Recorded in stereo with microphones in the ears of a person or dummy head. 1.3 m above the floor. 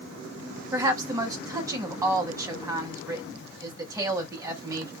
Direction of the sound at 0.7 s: 10° right (ahead or behind).